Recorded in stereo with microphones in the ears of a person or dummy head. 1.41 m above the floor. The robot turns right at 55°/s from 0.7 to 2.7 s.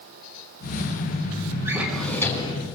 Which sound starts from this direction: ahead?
A drawer, at 1.6 s.